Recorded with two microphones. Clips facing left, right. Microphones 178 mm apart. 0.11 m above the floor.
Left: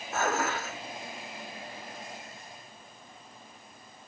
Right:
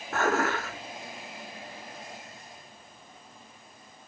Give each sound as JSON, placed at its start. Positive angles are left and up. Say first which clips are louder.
{"t": 0.1, "sound": "dishes clattering", "louder": "right 3 dB", "side_deg": -55, "distance_m": 3.0}